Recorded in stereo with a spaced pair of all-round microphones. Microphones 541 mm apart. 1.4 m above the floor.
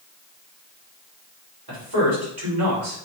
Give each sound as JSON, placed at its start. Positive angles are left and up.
{"t": 1.7, "sound": "a man speaking", "side_deg": -45, "distance_m": 3.5}